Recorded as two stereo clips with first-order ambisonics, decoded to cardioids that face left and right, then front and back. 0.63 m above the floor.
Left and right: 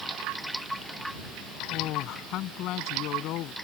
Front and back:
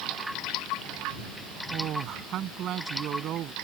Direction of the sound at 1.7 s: 130° left.